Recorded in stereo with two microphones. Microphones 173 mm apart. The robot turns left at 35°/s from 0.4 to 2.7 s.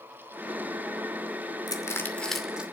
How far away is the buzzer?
I don't hear a buzzer.